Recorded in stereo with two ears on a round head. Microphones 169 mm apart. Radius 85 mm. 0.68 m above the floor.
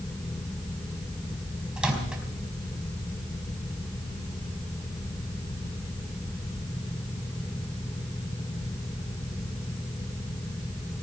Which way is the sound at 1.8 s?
5° right (ahead or behind).